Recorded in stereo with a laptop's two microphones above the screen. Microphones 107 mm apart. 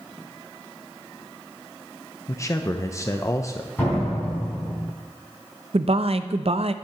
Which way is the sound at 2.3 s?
30° left (ahead or behind).